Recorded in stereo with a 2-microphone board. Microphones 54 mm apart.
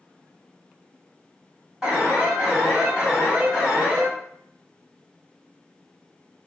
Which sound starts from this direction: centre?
An alarm, at 1.8 s.